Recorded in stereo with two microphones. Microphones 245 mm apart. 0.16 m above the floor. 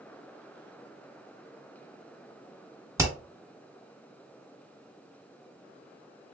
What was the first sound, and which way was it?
Hammering, 10° right (ahead or behind).